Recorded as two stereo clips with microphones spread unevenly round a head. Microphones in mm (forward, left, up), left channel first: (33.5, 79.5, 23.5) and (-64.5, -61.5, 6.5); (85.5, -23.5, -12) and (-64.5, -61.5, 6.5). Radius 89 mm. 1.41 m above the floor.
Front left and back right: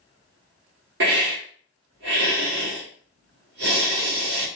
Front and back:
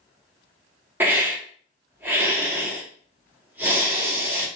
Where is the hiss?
90° right, 0.9 m.